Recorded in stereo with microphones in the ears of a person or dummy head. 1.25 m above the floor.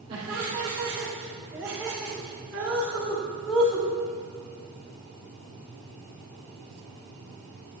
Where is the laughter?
30° right (ahead or behind), 3 m; by 3.9 s 15° left (ahead or behind), 5.5 m.